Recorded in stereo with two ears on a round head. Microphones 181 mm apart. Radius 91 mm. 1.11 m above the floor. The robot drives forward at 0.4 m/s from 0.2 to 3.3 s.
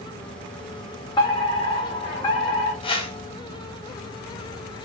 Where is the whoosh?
25° left (ahead or behind), 2.5 m.